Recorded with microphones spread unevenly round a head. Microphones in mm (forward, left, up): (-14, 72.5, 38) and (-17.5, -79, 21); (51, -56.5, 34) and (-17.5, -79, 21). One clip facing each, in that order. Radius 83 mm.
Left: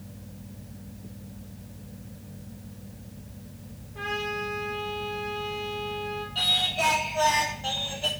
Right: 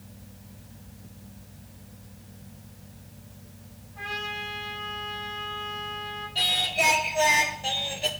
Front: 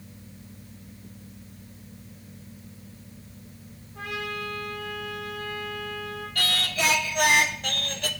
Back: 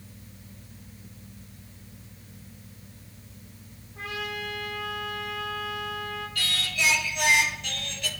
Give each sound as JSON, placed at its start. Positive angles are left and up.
{"t": 4.0, "sound": "a trumpet", "azimuth_deg": 85, "distance_m": 5.0}
{"t": 6.3, "sound": "singing", "azimuth_deg": -15, "distance_m": 0.9}